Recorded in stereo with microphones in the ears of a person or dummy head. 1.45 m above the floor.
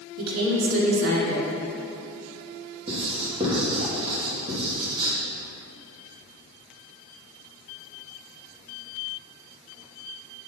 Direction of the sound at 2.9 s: 30° right (ahead or behind).